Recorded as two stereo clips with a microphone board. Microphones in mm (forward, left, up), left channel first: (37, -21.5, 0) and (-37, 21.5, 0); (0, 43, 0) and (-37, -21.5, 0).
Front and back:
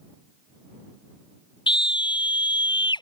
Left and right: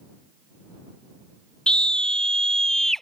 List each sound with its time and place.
1.7 s a scream: 15° right; by 3.0 s 25° right